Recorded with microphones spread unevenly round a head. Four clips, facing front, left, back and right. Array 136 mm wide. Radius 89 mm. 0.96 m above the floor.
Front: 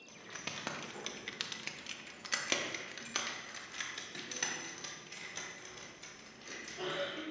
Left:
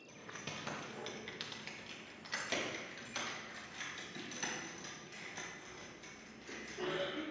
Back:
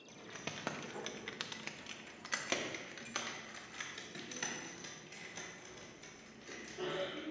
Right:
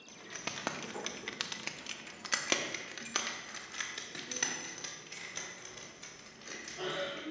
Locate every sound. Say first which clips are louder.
0.1 s keys jangling: right 4 dB, even; 155° right, 0.7 m; by 7.2 s 35° right, 3.5 m